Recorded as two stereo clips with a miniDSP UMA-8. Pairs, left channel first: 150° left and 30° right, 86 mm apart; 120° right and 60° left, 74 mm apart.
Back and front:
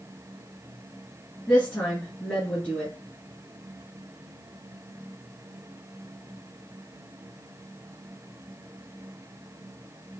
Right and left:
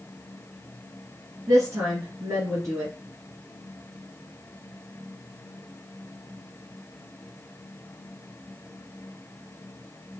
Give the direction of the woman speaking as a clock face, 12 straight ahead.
9 o'clock.